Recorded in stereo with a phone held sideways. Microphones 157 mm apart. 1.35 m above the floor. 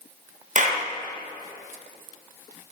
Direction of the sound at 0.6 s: 55° right (ahead or behind).